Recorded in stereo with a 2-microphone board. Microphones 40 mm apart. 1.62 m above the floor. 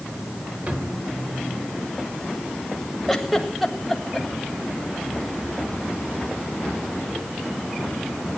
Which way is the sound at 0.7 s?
40° right (ahead or behind).